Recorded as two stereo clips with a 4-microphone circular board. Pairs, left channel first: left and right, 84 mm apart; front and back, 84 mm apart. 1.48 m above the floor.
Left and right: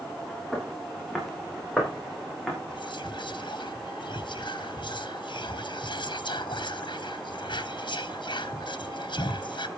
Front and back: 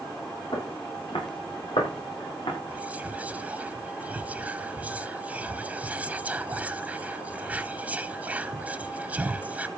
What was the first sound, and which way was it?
Footsteps, straight ahead.